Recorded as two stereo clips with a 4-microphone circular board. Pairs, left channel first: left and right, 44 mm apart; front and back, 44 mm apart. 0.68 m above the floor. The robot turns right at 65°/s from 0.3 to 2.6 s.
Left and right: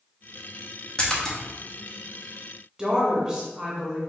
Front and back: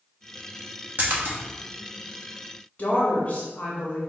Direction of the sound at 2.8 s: 25° right.